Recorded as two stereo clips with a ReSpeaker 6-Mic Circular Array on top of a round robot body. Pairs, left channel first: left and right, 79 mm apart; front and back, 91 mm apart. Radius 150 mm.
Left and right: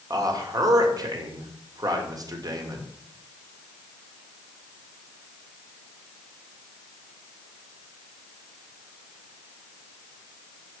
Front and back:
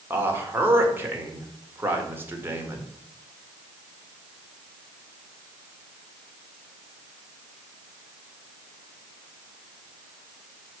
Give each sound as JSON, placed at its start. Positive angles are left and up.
{"t": 0.1, "sound": "a man speaking", "azimuth_deg": -115, "distance_m": 2.0}